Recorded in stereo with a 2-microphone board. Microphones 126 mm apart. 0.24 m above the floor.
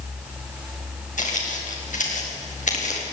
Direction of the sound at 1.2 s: 85° left.